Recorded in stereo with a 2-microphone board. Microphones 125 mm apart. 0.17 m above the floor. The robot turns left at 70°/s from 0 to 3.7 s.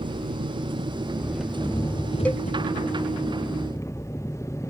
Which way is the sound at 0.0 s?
80° right.